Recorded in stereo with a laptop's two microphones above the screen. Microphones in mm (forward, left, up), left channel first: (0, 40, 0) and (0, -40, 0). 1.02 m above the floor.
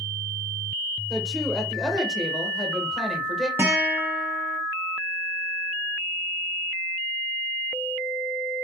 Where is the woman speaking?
5° left (ahead or behind), 0.9 m.